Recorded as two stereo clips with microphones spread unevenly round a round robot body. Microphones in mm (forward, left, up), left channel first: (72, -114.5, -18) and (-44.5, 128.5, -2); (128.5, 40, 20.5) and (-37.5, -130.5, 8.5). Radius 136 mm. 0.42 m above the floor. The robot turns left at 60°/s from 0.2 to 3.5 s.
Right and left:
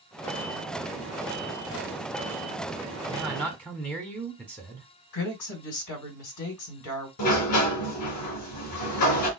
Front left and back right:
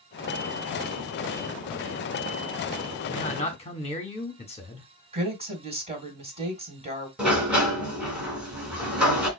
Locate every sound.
3.1 s a man speaking: 35° left, 1.3 m; by 4.9 s 10° left, 1.3 m
5.1 s a woman speaking: 70° right, 2.5 m
7.2 s a sliding door: 50° right, 2.5 m